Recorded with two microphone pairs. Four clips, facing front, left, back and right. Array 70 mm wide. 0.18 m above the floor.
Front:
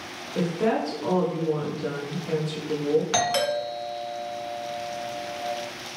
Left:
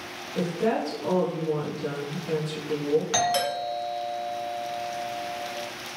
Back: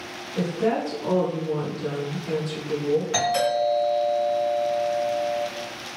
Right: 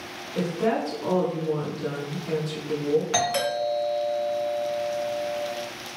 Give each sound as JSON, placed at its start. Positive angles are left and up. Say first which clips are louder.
{"t": 0.3, "sound": "a woman speaking", "louder": "right 1 dB, even", "azimuth_deg": -40, "distance_m": 1.9}
{"t": 3.1, "sound": "a doorbell", "louder": "even, back 2 dB", "azimuth_deg": 25, "distance_m": 1.7}